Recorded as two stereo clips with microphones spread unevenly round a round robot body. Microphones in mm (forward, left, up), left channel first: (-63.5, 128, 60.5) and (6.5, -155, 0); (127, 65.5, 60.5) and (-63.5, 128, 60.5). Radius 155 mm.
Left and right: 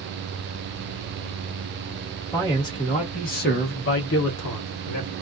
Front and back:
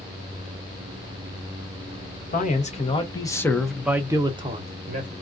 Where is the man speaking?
15° left, 1.1 m; by 5.1 s 130° left, 1.1 m.